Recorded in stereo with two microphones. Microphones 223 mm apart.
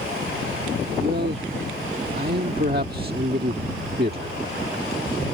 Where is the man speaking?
45° right (ahead or behind).